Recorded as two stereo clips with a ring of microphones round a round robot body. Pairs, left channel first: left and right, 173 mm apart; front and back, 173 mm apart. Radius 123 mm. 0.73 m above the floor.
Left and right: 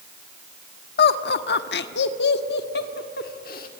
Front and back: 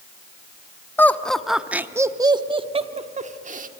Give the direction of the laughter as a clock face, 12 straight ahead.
9 o'clock.